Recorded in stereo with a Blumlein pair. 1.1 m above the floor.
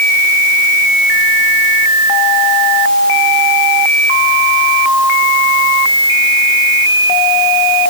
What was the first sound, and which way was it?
Only background noise.